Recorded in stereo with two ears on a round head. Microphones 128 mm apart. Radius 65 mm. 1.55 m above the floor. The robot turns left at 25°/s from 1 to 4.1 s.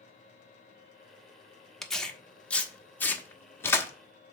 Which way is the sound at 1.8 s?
Centre (ahead or behind).